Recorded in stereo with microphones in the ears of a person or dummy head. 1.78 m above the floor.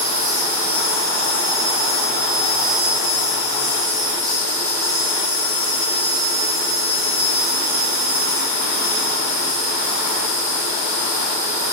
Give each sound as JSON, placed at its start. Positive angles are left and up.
{"t": 0.0, "sound": "an insect", "side_deg": -10, "distance_m": 3.0}